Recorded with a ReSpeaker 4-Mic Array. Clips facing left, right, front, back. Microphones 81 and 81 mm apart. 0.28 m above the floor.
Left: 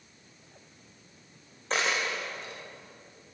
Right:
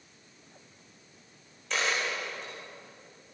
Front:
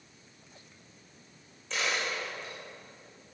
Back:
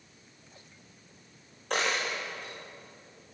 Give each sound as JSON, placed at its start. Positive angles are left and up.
{"t": 1.7, "sound": "a dropped coin", "azimuth_deg": 145, "distance_m": 6.5}